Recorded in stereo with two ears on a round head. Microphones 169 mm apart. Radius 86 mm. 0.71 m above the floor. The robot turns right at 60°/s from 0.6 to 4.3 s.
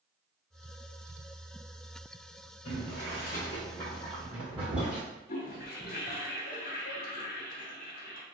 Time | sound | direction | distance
2.6 | boiling | 75° left (ahead or behind) | 1.4 m
5.3 | a toilet flushing | 55° left (ahead or behind) | 0.8 m